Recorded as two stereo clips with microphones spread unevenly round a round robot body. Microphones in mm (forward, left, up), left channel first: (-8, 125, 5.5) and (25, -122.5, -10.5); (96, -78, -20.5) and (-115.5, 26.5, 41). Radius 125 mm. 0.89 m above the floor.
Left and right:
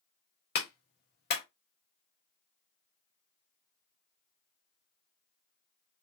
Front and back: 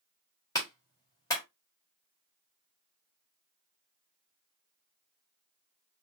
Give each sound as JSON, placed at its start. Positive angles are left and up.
{"t": 0.6, "sound": "a clap", "azimuth_deg": 45, "distance_m": 1.5}